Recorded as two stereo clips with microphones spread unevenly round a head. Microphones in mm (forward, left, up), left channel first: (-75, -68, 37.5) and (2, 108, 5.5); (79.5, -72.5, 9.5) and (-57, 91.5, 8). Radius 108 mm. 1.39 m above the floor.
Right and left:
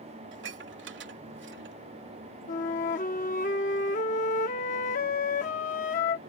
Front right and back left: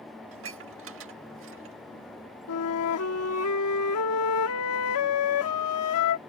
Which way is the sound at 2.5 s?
65° right.